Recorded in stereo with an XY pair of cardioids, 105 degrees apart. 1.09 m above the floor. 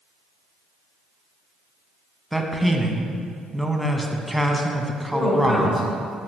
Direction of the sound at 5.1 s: 30° left.